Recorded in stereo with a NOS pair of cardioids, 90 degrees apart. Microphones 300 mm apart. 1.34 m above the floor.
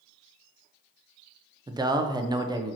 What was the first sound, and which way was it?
A man speaking, 15° right.